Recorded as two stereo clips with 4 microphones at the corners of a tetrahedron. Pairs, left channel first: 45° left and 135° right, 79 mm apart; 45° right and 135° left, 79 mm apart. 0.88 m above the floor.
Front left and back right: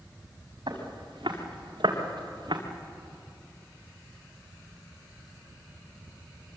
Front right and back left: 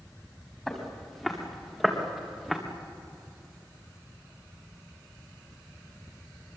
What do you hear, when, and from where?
0.7 s footsteps: 130° right, 5.5 m; by 2.6 s 135° right, 4 m